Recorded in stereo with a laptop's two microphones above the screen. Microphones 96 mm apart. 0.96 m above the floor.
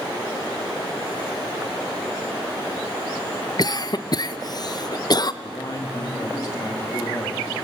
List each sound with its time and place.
3.6 s a cough: 45° left (ahead or behind), 0.6 m
5.4 s a man speaking: 40° left (ahead or behind), 2 m